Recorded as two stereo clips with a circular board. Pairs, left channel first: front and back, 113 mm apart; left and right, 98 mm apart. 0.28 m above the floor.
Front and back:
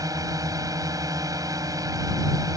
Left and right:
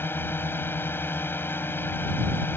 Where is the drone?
145° left.